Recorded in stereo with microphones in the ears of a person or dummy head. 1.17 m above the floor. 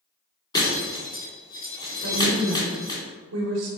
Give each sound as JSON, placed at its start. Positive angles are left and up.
{"t": 0.5, "sound": "breaking glass", "side_deg": 15, "distance_m": 1.9}
{"t": 2.0, "sound": "a woman speaking", "side_deg": -85, "distance_m": 0.9}